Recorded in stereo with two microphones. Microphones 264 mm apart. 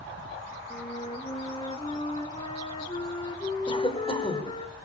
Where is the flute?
20° left (ahead or behind), 1.7 m.